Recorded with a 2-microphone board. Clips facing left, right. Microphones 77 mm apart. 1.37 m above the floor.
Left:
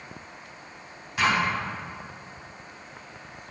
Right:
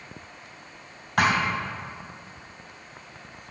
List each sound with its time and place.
1.2 s a thud: 65° right (ahead or behind), 3 m